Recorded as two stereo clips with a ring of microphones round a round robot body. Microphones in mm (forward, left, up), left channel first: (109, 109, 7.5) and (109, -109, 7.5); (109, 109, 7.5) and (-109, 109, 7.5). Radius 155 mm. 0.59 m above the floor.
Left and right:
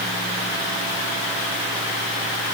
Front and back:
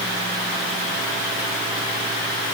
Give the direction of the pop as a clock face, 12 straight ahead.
I don't hear a pop.